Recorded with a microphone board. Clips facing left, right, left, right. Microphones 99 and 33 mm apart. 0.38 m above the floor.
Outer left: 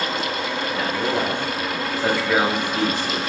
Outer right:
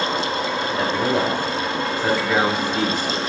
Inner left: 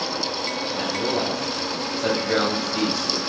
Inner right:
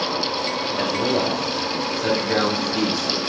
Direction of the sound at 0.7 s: 35° right (ahead or behind).